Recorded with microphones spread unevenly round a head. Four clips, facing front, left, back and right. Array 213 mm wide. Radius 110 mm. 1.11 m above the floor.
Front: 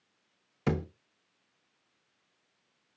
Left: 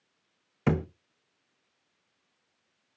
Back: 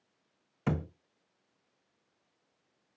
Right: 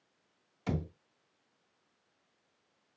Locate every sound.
0.7 s a thud: 70° left, 0.6 m